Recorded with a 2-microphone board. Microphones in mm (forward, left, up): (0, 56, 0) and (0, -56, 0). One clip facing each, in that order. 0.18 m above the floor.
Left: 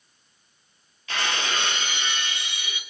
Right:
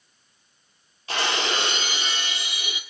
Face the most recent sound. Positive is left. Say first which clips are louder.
# right 2 dB
turn(degrees=-35)  # may be behind; listen again after turning